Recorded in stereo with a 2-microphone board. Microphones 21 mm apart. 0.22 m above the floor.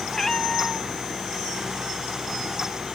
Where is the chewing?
I don't hear chewing.